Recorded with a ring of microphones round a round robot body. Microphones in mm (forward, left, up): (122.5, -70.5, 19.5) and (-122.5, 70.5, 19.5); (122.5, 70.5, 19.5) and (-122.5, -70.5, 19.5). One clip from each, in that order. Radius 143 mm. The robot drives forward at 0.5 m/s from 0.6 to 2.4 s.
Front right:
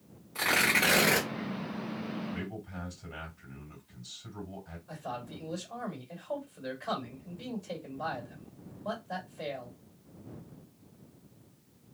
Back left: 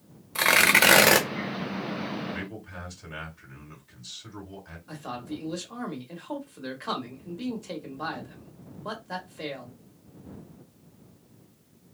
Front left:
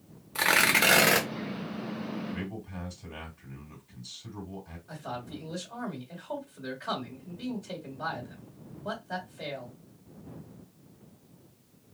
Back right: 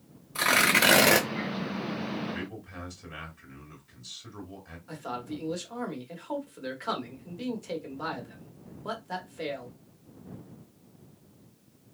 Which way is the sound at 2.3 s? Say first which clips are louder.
Back left 4 dB, back right 1 dB; 175° right.